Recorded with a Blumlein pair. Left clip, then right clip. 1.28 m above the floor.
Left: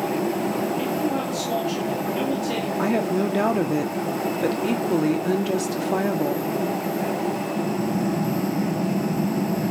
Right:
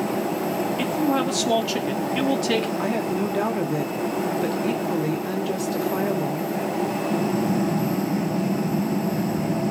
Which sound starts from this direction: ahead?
A woman speaking, at 2.8 s.